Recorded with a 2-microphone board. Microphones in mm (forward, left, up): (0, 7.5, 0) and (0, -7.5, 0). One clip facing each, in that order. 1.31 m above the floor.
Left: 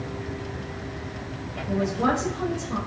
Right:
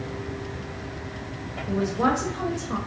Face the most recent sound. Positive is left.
turn(degrees=-80)